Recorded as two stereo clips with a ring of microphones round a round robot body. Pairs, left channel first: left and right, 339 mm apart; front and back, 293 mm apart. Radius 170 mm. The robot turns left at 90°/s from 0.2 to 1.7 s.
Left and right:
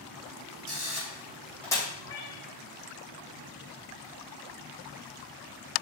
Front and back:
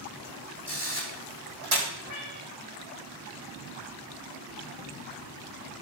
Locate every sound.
0.7 s a camera shutter: 95° right, 6.5 m; by 1.8 s 170° left, 6.5 m
2.0 s a cat meowing: 135° left, 5.5 m